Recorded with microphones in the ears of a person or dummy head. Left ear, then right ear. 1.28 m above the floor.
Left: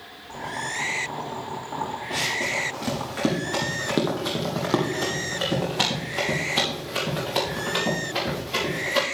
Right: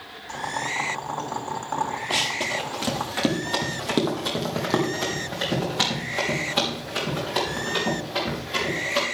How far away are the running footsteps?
About 1.6 m.